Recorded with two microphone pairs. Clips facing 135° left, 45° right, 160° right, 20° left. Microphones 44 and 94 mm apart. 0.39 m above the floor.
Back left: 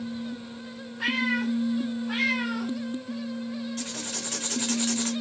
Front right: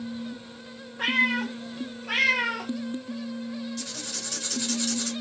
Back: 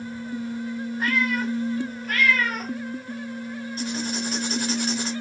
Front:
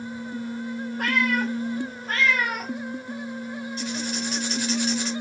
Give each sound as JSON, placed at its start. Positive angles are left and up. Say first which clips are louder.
{"t": 1.0, "sound": "a cat meowing", "louder": "front right 2 dB, front 1 dB", "azimuth_deg": -5, "distance_m": 1.2}
{"t": 3.8, "sound": "writing", "louder": "back left 2 dB, back 3 dB", "azimuth_deg": 170, "distance_m": 1.1}